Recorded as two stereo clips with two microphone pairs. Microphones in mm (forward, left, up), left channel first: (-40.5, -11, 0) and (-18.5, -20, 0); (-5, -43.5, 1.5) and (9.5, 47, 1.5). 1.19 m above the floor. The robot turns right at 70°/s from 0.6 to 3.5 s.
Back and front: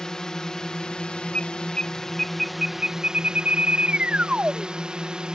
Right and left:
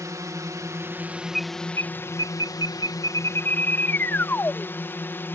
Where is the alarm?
175° left; by 4.7 s 35° right.